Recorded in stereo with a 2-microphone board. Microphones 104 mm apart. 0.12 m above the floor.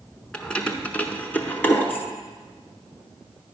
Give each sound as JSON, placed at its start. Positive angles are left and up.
{"t": 0.3, "sound": "keys jangling", "side_deg": 10, "distance_m": 0.8}